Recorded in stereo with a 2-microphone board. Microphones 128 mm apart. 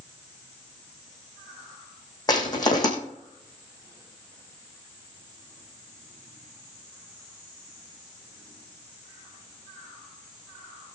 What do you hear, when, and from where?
2.3 s crushing: 30° left (ahead or behind), 3.5 m